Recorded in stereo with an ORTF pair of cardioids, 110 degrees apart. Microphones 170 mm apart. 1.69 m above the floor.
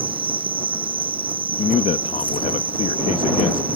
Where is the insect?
30° right.